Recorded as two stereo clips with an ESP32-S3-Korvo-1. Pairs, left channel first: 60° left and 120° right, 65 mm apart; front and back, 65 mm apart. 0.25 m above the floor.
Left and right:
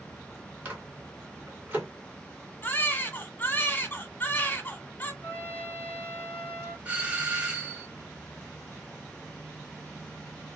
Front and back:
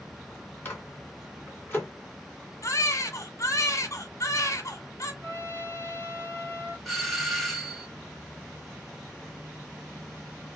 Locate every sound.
0.7 s a microwave: 55° right, 2.5 m
2.6 s a baby crying: 10° left, 1.2 m
5.2 s a trumpet: 120° left, 1.8 m
6.8 s a doorbell: 85° right, 1.4 m